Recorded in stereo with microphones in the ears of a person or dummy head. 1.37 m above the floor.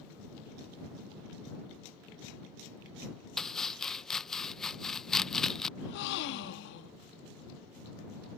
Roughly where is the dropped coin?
I don't hear a dropped coin.